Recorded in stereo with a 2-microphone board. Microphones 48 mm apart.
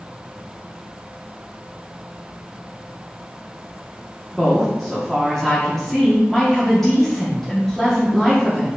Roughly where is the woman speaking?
Centre.